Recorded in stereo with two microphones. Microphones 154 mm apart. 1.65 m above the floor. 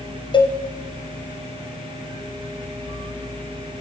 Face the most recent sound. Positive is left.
turn(degrees=30)  # may be behind; listen again after turning